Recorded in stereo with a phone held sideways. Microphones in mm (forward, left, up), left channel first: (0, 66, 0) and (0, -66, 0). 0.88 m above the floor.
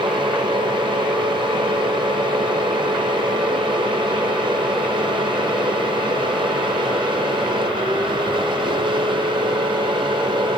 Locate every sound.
0.0 s a fan: 35° right (ahead or behind), 1.7 m